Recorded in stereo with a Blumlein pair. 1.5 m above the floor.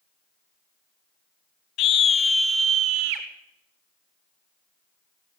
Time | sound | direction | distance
1.8 | a scream | 35° left | 1.3 m